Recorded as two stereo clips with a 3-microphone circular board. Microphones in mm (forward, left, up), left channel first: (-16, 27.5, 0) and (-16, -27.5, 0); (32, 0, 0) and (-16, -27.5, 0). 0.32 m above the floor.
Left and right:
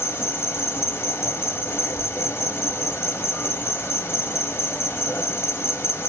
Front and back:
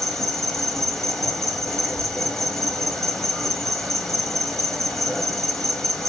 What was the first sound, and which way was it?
An insect, 110° left.